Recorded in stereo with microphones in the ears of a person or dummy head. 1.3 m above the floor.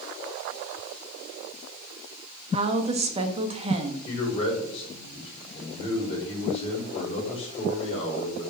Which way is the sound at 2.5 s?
35° right (ahead or behind).